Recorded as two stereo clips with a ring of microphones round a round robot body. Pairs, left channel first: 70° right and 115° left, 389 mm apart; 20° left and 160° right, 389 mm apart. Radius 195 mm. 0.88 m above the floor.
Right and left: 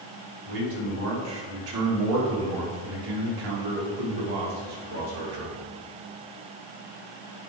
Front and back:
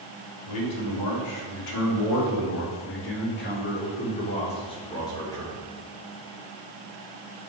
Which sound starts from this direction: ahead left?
A man speaking, at 0.5 s.